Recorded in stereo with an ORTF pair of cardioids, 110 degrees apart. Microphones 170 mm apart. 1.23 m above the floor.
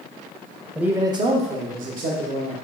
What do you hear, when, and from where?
0.8 s a man speaking: 5° right, 0.6 m; by 2.5 s 65° right, 1.2 m